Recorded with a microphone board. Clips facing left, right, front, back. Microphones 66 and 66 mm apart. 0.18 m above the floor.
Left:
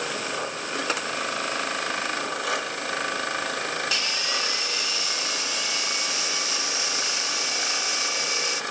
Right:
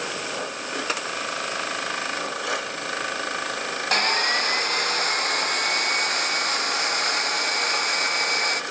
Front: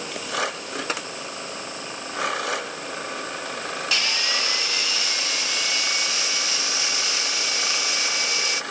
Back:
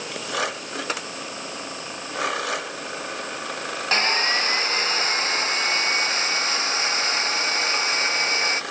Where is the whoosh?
No whoosh in this recording.